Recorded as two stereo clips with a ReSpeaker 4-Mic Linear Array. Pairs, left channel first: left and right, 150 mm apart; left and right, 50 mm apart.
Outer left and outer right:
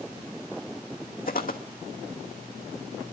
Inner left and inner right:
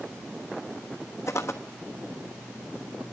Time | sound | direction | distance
1.3 | footsteps | 75° left (ahead or behind) | 1.3 m